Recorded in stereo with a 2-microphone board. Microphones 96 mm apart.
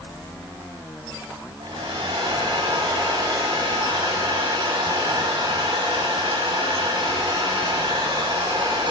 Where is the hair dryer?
75° right (ahead or behind), 2.0 m.